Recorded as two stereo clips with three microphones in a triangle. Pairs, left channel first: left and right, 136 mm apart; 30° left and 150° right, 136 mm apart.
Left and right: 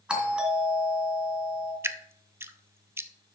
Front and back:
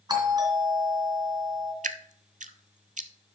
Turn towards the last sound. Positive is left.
turn(degrees=-160)